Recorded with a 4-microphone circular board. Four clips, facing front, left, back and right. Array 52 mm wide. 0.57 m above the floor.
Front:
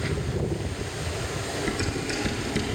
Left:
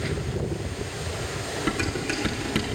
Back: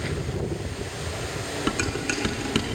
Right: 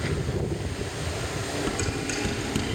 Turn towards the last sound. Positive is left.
turn(degrees=160)